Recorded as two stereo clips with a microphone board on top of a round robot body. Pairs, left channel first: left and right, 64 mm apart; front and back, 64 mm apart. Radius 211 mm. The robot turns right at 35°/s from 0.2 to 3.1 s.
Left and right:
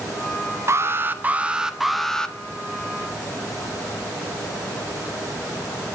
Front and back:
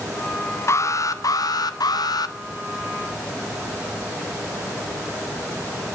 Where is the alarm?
45° right, 1.4 m; by 2.4 s 15° left, 1.4 m.